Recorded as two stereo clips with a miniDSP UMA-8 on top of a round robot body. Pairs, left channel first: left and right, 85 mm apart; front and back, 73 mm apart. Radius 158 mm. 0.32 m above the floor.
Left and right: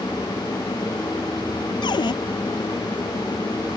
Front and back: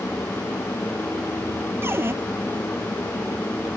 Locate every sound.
1.8 s a cupboard door: 125° left